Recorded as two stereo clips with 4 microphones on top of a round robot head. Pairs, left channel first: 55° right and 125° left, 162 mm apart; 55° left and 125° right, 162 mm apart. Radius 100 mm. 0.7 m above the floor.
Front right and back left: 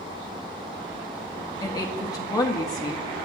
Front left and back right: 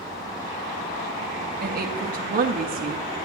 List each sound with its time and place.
1.6 s a woman speaking: 125° right, 0.7 m